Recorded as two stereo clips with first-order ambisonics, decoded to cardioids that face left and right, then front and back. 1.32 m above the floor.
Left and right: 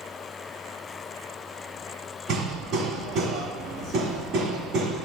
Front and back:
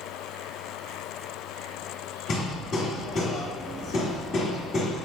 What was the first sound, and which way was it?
Hammering, 55° right.